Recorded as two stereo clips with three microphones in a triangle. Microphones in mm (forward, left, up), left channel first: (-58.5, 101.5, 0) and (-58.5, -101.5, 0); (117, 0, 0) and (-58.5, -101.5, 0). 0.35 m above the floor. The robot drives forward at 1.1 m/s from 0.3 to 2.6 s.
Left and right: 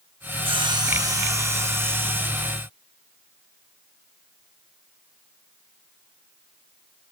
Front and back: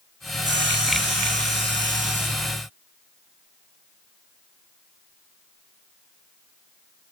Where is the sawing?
150° right, 1.3 m; by 2.5 s 170° right, 3.5 m.